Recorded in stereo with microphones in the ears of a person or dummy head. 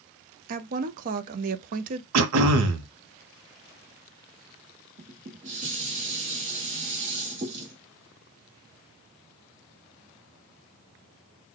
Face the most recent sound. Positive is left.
turn(degrees=-40)  # may be behind; listen again after turning